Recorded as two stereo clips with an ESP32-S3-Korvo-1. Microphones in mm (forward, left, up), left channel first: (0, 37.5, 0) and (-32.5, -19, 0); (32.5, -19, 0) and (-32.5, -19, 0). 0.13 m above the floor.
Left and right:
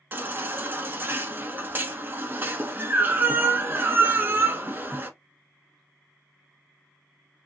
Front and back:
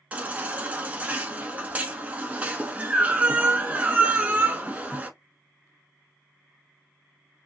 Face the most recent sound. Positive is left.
turn(degrees=-135)